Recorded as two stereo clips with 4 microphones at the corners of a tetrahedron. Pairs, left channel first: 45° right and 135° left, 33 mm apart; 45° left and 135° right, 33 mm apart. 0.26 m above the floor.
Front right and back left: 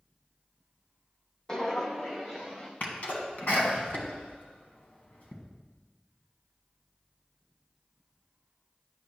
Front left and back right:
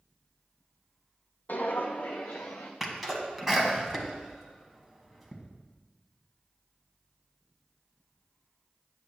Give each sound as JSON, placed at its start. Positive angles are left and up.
{"t": 1.5, "sound": "footsteps", "azimuth_deg": 25, "distance_m": 0.7}
{"t": 2.8, "sound": "a sneeze", "azimuth_deg": -50, "distance_m": 1.9}